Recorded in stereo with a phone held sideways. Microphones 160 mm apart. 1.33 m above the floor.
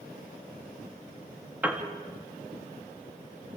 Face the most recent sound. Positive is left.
turn(degrees=-10)  # may be behind; listen again after turning